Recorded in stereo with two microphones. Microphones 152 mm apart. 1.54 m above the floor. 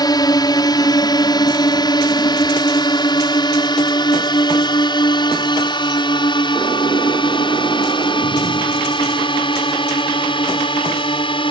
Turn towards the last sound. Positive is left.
turn(degrees=35)  # may be behind; listen again after turning